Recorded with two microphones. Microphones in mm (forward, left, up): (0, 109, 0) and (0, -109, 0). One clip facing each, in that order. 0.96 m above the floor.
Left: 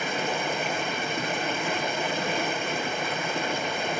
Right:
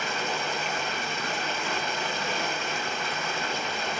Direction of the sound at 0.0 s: 60° left (ahead or behind).